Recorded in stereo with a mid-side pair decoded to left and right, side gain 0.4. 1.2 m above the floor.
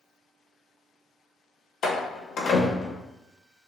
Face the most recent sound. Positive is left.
turn(degrees=60)